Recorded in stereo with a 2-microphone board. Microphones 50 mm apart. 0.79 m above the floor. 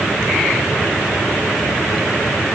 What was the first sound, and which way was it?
Only background noise.